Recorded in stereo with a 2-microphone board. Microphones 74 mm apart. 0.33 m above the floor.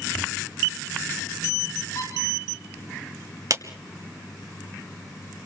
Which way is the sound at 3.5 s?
50° right (ahead or behind).